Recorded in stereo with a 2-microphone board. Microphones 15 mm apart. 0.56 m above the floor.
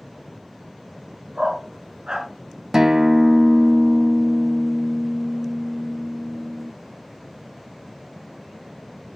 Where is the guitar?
40° right (ahead or behind), 0.9 m.